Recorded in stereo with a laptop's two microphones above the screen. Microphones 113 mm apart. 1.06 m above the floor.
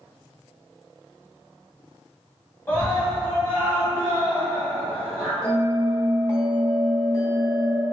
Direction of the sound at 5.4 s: 25° left (ahead or behind).